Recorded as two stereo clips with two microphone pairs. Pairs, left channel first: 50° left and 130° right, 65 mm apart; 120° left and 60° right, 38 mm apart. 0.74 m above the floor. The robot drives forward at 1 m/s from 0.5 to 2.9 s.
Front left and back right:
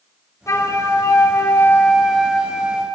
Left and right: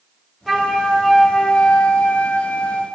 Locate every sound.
0.5 s a flute: 20° left, 1.5 m; by 2.9 s 160° left, 1.4 m